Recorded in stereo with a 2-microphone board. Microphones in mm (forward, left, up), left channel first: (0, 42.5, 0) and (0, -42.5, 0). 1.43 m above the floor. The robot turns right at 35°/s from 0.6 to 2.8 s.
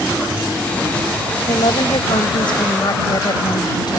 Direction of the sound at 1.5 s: 75° left.